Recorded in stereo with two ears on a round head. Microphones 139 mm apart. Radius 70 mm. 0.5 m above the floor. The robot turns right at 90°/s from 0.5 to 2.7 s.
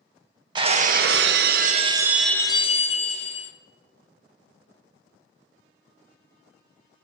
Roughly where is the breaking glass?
Behind right.